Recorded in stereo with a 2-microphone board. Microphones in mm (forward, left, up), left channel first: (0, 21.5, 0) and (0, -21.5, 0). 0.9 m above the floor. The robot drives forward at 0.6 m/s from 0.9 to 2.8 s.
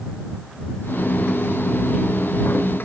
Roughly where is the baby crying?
I don't hear a baby crying.